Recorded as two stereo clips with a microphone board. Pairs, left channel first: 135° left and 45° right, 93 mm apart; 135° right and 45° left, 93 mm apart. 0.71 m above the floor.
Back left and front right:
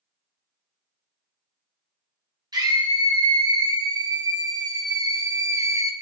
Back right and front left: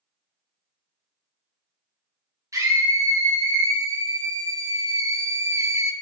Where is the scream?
5° right, 2.5 m; by 5.9 s straight ahead, 0.7 m.